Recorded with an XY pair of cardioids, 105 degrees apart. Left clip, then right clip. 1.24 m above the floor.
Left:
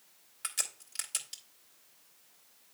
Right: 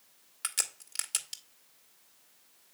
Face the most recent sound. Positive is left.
turn(degrees=-40)